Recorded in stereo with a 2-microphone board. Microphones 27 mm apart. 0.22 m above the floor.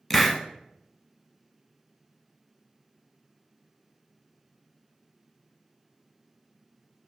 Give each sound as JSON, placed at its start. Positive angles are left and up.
{"t": 0.1, "sound": "a hiss", "side_deg": 10, "distance_m": 0.5}